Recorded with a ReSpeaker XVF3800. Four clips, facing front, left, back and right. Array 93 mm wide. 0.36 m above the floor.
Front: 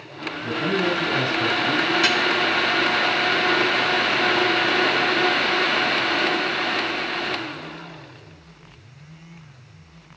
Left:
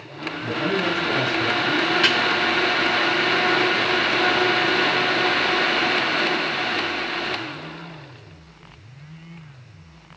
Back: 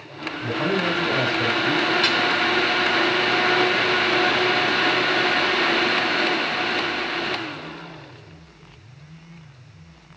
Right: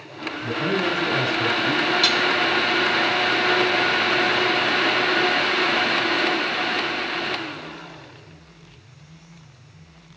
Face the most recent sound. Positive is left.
turn(degrees=70)